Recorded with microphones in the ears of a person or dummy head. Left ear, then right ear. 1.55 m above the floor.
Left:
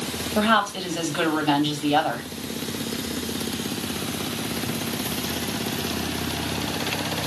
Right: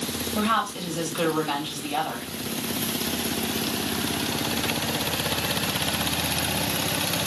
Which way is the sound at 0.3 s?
65° left (ahead or behind).